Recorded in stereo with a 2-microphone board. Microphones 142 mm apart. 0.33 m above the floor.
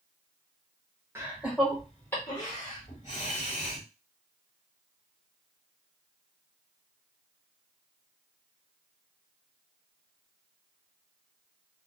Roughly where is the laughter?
Centre.